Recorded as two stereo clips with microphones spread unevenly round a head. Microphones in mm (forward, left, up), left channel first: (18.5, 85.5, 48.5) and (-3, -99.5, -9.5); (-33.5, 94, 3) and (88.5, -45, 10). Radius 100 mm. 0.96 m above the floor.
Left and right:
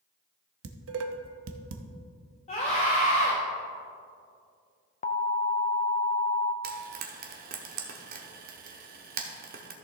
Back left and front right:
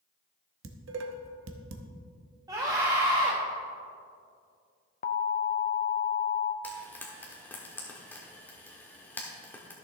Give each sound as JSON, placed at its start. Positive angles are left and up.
{"t": 0.6, "sound": "dishes clattering", "azimuth_deg": -85, "distance_m": 0.7}
{"t": 2.5, "sound": "a scream", "azimuth_deg": 25, "distance_m": 1.2}
{"t": 5.0, "sound": "an alarm", "azimuth_deg": 140, "distance_m": 0.5}
{"t": 6.6, "sound": "frying", "azimuth_deg": -145, "distance_m": 1.0}